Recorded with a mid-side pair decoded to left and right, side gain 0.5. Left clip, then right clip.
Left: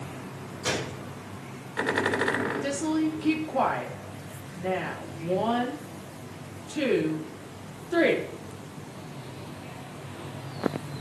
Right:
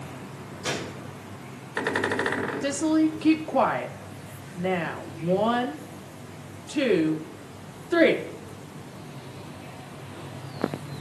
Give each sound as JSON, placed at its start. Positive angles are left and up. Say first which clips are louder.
{"t": 0.6, "sound": "a gunshot", "louder": "left 1 dB", "azimuth_deg": 10, "distance_m": 2.5}
{"t": 2.6, "sound": "a woman speaking", "louder": "right 4 dB", "azimuth_deg": -40, "distance_m": 2.5}